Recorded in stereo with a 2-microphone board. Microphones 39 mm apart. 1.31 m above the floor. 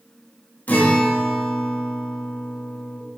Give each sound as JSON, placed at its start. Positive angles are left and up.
{"t": 0.7, "sound": "a guitar", "side_deg": 45, "distance_m": 1.3}